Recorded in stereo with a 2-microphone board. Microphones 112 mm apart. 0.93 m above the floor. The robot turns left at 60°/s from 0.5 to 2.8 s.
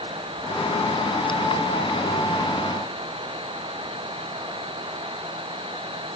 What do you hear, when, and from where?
Only background noise.